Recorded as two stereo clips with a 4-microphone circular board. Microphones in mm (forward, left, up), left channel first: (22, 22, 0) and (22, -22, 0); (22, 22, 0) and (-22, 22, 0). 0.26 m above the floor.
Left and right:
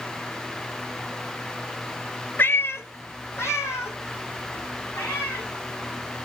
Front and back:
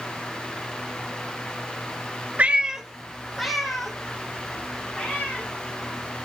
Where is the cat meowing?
125° left, 0.6 m; by 5.5 s 85° left, 4.5 m.